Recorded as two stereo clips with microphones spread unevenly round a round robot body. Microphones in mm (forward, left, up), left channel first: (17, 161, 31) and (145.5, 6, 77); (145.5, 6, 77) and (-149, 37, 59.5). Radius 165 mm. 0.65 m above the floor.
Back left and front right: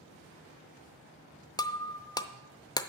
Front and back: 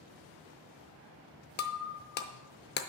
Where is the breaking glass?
50° left, 0.6 m.